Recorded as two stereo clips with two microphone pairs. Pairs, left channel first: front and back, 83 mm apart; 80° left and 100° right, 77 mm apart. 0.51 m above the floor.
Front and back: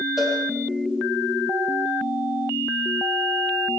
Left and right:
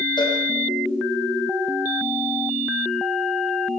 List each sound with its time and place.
0.2 s a cowbell: 100° left, 8 m